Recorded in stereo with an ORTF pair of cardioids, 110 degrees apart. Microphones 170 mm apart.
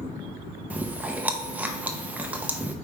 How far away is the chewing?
About 0.6 m.